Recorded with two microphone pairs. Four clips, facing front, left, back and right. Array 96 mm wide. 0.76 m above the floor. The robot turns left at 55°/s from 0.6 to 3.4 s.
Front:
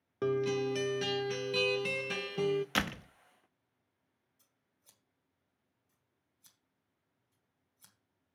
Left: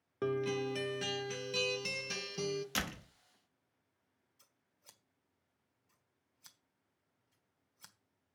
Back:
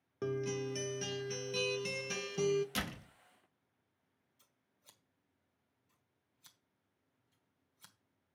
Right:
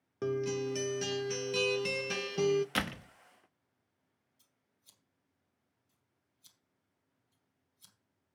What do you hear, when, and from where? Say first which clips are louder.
0.2 s a guitar: right 1 dB, front 6 dB; 35° left, 0.5 m; by 2.6 s 75° right, 0.5 m
2.8 s a door slam: right 5 dB, front 7 dB; 20° right, 0.8 m; by 3.1 s 40° right, 0.8 m
4.4 s scissors: left 4 dB, back 5 dB; 105° left, 1.3 m